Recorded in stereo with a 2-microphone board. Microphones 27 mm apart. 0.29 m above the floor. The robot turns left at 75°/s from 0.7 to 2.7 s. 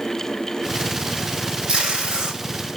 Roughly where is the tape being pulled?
Right.